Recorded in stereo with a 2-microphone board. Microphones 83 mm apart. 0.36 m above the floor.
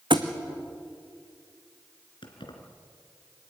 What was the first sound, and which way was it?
A thud, 70° right (ahead or behind).